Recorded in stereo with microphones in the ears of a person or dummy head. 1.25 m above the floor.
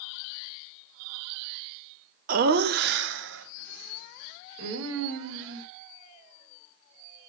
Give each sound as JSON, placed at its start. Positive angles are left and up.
{"t": 2.3, "sound": "laughter", "side_deg": -45, "distance_m": 0.6}